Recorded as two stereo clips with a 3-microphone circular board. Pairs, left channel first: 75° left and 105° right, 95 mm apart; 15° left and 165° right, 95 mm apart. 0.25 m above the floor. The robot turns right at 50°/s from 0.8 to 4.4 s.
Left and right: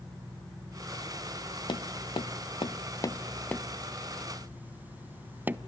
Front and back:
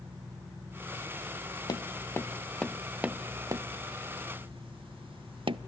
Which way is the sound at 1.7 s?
50° left.